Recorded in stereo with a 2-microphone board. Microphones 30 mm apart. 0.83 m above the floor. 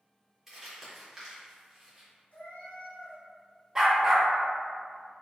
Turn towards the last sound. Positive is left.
turn(degrees=-15)  # may be behind; listen again after turning